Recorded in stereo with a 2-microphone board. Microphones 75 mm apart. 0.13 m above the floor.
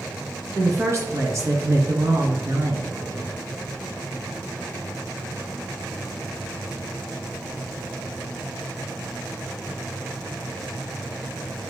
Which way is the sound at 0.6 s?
40° right (ahead or behind).